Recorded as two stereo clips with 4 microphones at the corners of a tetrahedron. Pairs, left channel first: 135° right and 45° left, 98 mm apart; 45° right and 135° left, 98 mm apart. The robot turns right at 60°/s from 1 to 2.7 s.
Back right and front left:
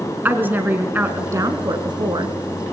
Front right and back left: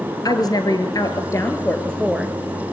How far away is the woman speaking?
About 1.6 m.